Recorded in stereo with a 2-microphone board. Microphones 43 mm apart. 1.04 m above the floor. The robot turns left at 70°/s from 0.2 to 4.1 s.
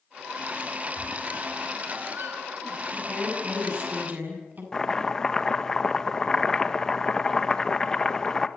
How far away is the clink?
I don't hear a clink.